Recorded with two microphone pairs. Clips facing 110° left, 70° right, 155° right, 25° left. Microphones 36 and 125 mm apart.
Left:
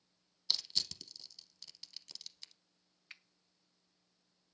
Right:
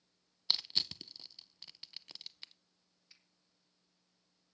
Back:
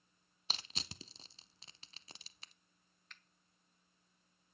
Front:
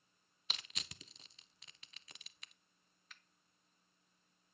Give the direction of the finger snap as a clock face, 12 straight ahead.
8 o'clock.